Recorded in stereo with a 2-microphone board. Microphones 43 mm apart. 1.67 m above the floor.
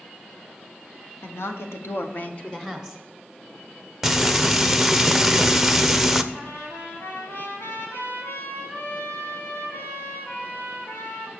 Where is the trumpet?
75° left (ahead or behind), 4 m.